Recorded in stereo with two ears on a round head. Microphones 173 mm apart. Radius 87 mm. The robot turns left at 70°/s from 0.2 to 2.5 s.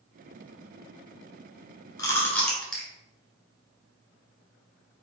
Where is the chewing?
20° left (ahead or behind), 1.4 m; by 2.9 s 5° left (ahead or behind), 1.4 m.